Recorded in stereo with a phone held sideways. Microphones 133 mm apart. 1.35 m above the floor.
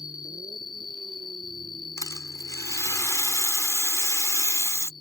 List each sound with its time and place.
0.0 s an insect: 30° left (ahead or behind)
2.0 s a rattle: 25° left (ahead or behind)